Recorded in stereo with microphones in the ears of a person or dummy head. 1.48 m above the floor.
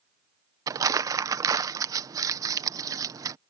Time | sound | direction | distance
0.7 | crumpling | 20° right (ahead or behind) | ?